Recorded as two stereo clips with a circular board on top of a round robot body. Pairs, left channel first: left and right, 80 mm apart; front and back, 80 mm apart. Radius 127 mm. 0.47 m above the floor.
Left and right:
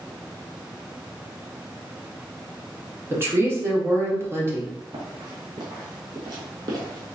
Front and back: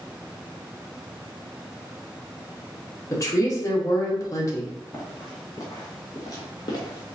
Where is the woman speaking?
40° right, 1.6 m.